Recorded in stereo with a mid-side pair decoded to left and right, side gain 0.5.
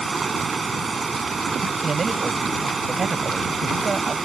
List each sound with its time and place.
0.0 s running water: 35° right
1.8 s a man speaking: 35° right